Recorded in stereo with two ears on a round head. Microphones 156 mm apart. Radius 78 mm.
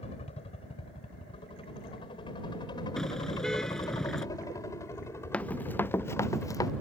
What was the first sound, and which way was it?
A helicopter, 35° left (ahead or behind).